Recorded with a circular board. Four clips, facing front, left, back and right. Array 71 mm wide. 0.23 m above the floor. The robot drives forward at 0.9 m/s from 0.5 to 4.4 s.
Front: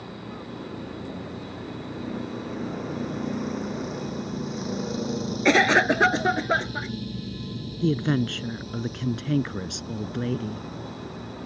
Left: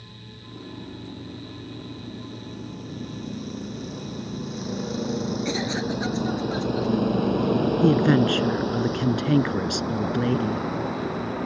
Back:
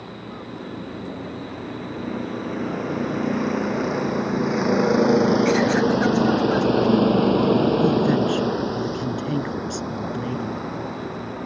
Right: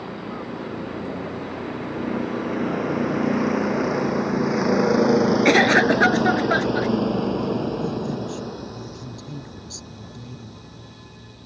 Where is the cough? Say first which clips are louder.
Right 11 dB, back 1 dB; 55° right.